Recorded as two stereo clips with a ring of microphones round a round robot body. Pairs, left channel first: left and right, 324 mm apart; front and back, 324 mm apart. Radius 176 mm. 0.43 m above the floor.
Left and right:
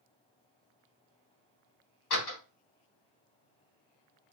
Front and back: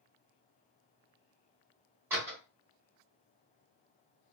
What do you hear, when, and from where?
2.1 s a door slam: 95° left, 1.3 m